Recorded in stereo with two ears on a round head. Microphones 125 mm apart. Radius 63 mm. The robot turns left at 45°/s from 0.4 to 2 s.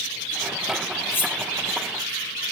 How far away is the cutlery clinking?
About 0.6 m.